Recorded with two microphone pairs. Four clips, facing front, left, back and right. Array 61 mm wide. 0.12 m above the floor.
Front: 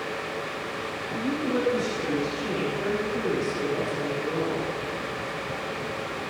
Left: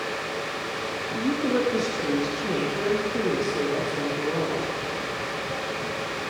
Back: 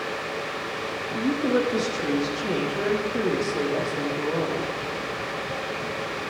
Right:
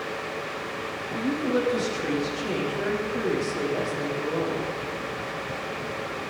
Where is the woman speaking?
165° left, 5.5 m.